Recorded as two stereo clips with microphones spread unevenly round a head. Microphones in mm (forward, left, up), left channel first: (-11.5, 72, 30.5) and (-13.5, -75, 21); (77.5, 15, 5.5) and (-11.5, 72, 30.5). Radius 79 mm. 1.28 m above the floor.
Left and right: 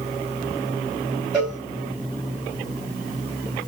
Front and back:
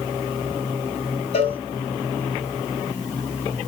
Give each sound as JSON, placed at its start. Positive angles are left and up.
{"t": 1.3, "sound": "a cowbell", "azimuth_deg": 0, "distance_m": 5.0}